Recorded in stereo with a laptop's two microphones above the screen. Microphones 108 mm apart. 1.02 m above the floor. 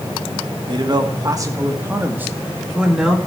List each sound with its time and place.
0.7 s a man speaking: 45° right (ahead or behind), 1.5 m; by 3.2 s 5° right (ahead or behind), 2.5 m